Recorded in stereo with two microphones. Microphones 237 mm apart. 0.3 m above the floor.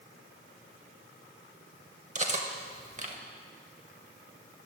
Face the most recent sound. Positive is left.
turn(degrees=-30)  # may be behind; listen again after turning